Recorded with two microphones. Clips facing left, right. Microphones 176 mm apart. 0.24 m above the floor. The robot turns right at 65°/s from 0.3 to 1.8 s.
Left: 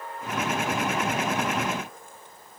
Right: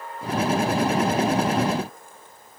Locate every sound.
Only background noise.